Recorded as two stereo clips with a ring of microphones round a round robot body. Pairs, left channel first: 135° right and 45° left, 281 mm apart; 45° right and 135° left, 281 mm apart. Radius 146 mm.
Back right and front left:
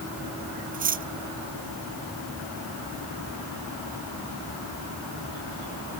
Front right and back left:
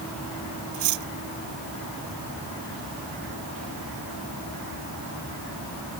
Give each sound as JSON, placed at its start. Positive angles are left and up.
{"t": 0.7, "sound": "cutlery clinking", "azimuth_deg": 105}